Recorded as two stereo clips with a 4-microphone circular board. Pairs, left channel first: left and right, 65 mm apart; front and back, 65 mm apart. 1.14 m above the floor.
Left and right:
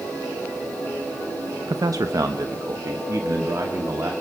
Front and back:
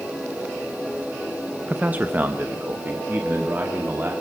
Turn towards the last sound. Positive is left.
turn(degrees=-125)